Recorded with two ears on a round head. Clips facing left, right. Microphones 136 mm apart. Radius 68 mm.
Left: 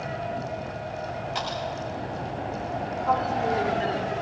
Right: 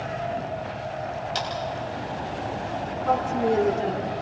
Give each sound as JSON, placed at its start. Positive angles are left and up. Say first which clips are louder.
{"t": 1.4, "sound": "a clap", "louder": "right 1 dB", "side_deg": -45, "distance_m": 9.0}
{"t": 3.0, "sound": "a woman speaking", "louder": "right 2 dB", "side_deg": -65, "distance_m": 5.0}